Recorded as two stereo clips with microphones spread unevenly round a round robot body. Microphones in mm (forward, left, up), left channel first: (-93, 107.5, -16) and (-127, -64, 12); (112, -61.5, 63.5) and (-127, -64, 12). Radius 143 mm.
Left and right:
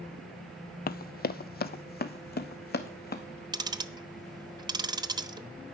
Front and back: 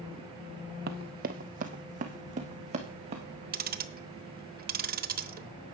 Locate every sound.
0.9 s running footsteps: 120° left, 0.7 m; by 3.2 s 110° left, 2.0 m
3.5 s ticking: 170° right, 1.0 m